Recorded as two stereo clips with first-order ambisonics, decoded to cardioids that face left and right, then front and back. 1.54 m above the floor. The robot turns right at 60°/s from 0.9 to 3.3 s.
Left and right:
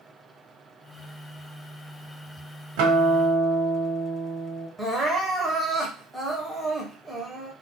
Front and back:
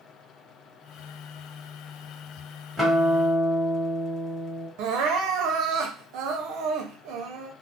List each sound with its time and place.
2.8 s a guitar: 90° right, 1.0 m; by 4.7 s 55° right, 1.0 m
4.8 s crying: straight behind, 0.6 m